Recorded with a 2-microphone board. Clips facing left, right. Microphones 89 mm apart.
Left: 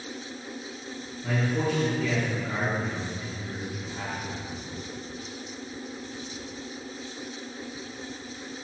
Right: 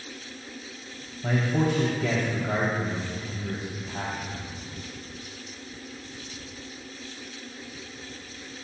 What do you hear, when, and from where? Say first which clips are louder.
1.2 s a man speaking: right 2 dB; 65° right (ahead or behind), 3 m